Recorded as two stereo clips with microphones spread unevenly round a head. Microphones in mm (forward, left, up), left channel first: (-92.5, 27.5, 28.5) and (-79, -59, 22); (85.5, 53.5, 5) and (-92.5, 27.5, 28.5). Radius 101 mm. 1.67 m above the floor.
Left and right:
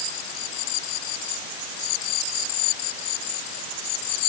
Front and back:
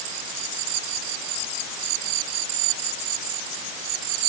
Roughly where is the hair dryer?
I don't hear a hair dryer.